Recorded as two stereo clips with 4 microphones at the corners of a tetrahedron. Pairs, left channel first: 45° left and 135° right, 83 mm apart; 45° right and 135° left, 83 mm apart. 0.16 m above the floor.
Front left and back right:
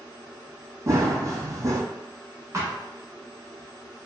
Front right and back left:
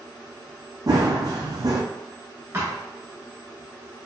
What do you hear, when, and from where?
0.9 s running footsteps: 175° left, 0.5 m
2.5 s a thud: 175° right, 0.9 m